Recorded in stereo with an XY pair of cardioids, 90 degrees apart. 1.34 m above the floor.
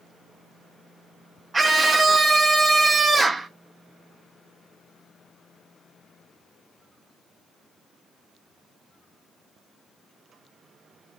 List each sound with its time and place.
1.5 s a scream: 25° right, 0.6 m